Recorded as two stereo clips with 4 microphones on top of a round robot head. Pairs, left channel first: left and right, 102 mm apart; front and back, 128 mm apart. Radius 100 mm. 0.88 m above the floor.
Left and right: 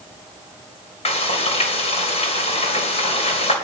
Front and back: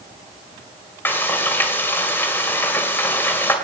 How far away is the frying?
About 3 m.